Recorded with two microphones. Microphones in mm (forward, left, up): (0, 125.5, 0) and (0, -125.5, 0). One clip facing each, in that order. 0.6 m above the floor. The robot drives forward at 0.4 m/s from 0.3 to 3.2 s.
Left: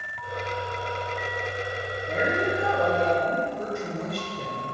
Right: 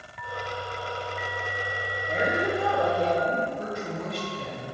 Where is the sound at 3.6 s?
50° left (ahead or behind), 1.9 m.